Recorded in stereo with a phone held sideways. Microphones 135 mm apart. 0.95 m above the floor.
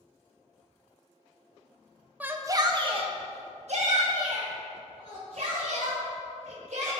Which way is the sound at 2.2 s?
10° right (ahead or behind).